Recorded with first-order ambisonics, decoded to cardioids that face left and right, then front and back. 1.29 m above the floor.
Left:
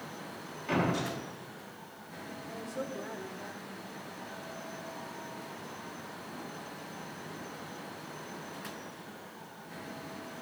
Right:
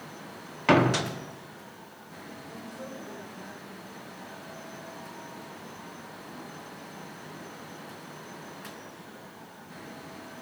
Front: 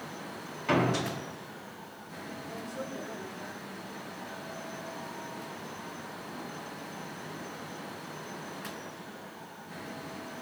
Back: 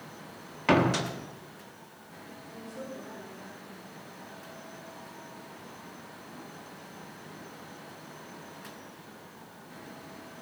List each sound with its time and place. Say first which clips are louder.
0.7 s a door slam: right 9 dB, back 3 dB; 125° right, 1.5 m
2.5 s a woman speaking: left 4 dB, front 1 dB; 85° left, 5 m